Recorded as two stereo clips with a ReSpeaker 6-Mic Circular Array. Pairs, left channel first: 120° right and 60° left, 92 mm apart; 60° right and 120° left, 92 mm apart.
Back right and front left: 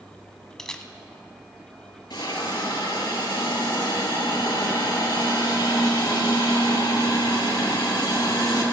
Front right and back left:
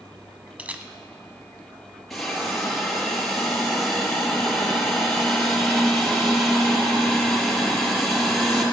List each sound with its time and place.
0.6 s a camera shutter: 170° left, 0.7 m
2.1 s a hiss: 145° right, 4 m